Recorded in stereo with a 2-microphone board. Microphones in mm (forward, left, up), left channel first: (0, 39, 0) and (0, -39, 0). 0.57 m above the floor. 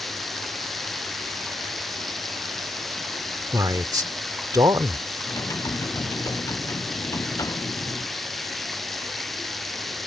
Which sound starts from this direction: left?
Typing on a keyboard, at 5.2 s.